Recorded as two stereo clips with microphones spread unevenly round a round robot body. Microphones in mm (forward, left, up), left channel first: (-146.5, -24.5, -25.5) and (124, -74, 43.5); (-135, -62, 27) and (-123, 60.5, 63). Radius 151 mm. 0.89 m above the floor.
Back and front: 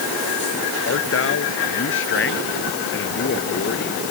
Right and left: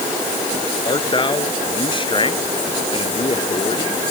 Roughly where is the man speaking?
Behind right.